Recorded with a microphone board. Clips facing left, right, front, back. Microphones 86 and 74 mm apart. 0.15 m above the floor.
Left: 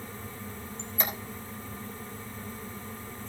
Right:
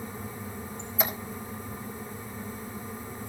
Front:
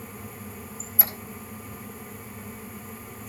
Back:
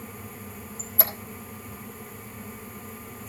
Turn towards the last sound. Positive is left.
turn(degrees=-175)